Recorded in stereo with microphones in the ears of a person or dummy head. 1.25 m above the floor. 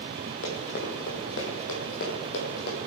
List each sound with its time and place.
0.4 s running footsteps: 50° left (ahead or behind), 2.5 m; by 2.8 s 60° left (ahead or behind), 3.5 m